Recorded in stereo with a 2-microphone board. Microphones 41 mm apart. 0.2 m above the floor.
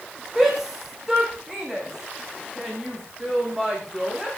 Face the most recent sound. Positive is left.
turn(degrees=-15)  # may be behind; listen again after turning